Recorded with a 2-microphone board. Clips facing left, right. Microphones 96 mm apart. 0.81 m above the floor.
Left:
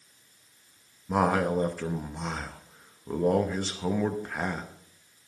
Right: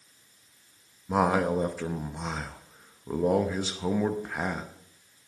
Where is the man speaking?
5° right (ahead or behind), 0.7 m.